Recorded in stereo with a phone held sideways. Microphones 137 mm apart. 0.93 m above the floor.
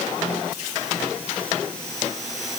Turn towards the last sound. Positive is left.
No sound to turn to.